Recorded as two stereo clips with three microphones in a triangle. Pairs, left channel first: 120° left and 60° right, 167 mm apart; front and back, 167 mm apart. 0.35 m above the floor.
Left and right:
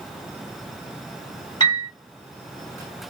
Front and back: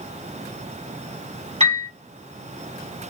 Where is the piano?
165° left, 2 m.